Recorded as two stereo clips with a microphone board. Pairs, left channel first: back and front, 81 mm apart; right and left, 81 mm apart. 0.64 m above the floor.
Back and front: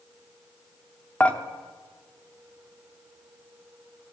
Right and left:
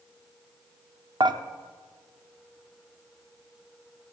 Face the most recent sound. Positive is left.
turn(degrees=110)